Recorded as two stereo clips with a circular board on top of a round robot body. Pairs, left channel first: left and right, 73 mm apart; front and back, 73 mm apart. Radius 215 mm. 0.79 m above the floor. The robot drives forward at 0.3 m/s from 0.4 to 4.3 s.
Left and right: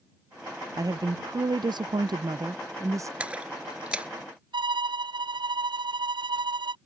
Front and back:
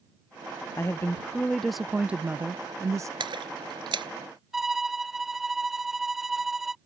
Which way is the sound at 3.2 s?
165° right.